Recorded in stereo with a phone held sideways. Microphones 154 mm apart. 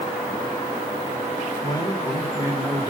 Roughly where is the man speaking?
Left.